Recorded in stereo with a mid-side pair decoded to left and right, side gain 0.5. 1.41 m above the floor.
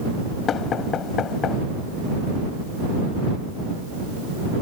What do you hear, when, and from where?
0.5 s knocking: 55° left